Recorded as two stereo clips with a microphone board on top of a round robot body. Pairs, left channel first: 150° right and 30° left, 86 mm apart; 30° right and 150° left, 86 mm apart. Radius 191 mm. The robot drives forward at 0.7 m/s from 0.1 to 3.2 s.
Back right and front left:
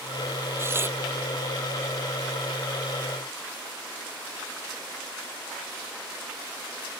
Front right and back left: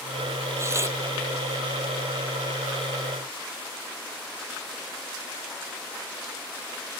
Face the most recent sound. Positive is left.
turn(degrees=95)